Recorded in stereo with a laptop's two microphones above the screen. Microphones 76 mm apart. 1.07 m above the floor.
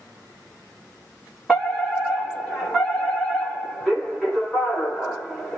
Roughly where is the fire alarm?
Centre.